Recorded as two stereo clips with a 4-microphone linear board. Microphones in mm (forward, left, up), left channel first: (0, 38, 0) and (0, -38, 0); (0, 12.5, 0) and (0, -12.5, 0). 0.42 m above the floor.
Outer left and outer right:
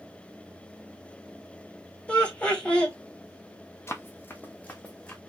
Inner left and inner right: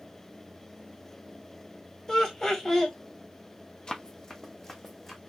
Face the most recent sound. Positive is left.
turn(degrees=15)  # may be behind; listen again after turning